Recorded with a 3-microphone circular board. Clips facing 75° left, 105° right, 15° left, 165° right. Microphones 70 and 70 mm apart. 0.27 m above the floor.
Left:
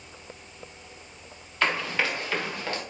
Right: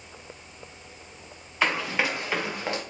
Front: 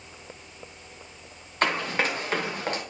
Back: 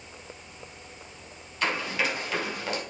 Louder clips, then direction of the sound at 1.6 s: Right 1 dB, front 3 dB; 30° right.